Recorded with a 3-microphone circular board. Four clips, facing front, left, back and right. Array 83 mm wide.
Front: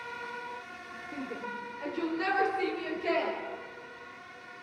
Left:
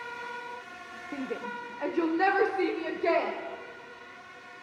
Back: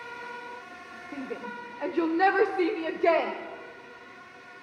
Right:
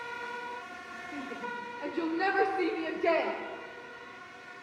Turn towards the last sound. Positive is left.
turn(degrees=180)